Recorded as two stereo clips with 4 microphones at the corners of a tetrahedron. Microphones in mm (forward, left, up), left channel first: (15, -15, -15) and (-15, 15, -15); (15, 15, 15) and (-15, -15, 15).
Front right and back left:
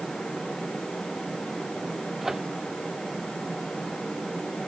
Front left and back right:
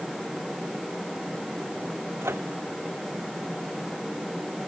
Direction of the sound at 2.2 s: 145° right.